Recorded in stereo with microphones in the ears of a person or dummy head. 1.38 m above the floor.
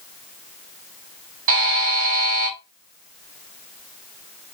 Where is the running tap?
I don't hear a running tap.